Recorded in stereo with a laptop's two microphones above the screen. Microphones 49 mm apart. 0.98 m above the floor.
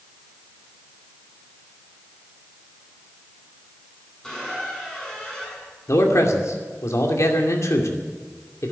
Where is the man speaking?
75° left (ahead or behind), 2.5 m.